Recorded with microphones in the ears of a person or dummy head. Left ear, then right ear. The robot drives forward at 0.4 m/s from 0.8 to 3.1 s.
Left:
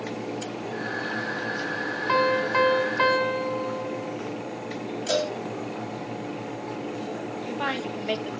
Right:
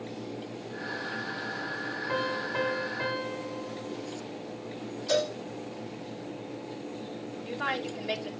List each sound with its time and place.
2.1 s a piano: 60° left (ahead or behind), 1.6 m; by 4.2 s 65° left (ahead or behind), 1.5 m
5.1 s a cowbell: 45° left (ahead or behind), 3 m
7.4 s a woman speaking: 25° left (ahead or behind), 1.5 m